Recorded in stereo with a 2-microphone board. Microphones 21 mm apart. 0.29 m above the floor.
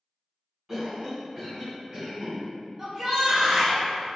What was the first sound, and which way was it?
A cough, 5° right (ahead or behind).